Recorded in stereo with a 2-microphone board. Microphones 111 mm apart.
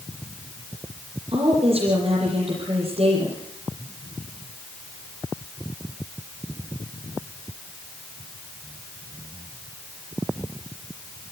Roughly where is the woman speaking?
Right.